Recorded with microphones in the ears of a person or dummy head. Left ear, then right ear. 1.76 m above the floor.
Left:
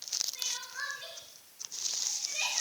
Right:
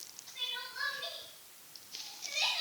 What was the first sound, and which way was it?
Crying, 35° left (ahead or behind).